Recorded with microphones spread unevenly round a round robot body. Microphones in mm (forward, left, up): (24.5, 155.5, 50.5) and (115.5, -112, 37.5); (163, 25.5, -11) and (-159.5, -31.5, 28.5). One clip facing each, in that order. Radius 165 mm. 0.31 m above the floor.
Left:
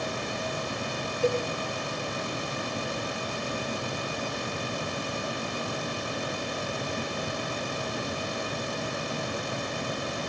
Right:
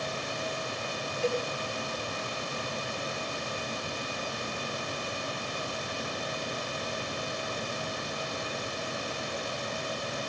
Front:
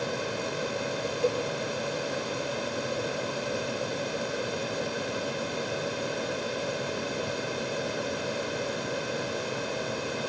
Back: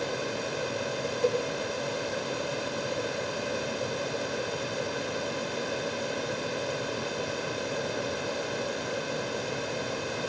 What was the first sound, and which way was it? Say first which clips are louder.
A cowbell: left 4 dB, back 1 dB; 75° left.